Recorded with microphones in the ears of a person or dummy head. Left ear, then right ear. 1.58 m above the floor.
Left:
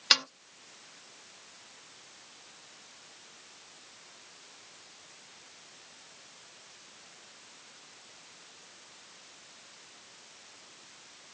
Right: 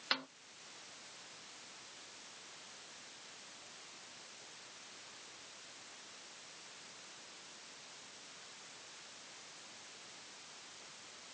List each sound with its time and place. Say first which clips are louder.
0.1 s a snare drum: left 13 dB; 85° left